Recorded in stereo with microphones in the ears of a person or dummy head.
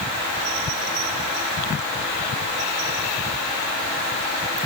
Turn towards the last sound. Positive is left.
No sound to turn to.